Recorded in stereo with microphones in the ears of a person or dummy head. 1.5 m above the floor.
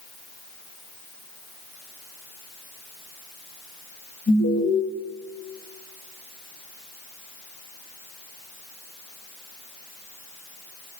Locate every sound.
4.3 s an alarm: 35° left (ahead or behind), 3.5 m